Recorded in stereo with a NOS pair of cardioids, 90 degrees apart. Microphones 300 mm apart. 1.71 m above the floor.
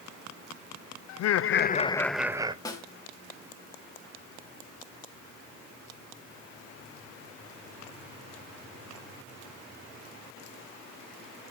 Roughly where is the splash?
No splash in this recording.